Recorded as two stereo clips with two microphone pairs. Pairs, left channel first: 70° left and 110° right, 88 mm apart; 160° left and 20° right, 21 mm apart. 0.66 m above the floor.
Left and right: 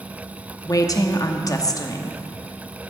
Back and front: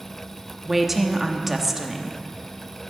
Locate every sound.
0.7 s a woman speaking: 55° left, 0.8 m